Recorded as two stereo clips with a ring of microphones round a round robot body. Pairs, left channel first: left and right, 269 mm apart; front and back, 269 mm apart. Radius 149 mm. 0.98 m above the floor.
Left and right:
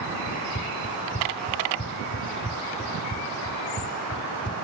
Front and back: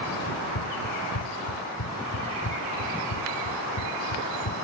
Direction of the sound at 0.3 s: 25° left.